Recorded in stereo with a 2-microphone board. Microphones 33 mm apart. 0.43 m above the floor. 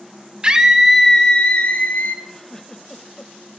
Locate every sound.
0.4 s a scream: 25° right (ahead or behind), 1.0 m; by 2.1 s 50° left (ahead or behind), 1.4 m
2.2 s a giggle: 15° left (ahead or behind), 0.9 m